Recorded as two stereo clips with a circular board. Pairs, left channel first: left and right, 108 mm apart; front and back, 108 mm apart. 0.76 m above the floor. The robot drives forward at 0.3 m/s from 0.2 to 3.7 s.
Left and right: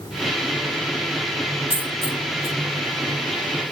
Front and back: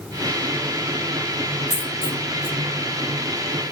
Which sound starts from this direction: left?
A dropped coin, at 1.7 s.